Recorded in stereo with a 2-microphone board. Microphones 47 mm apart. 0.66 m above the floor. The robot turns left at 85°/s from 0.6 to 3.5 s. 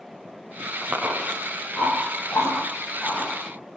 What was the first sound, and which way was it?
Chewing, 50° right (ahead or behind).